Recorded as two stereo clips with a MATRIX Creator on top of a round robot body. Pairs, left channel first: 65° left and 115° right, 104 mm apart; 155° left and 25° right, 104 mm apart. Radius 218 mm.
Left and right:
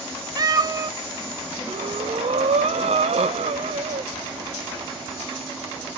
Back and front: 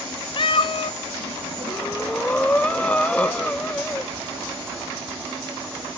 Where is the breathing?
125° right, 0.5 m.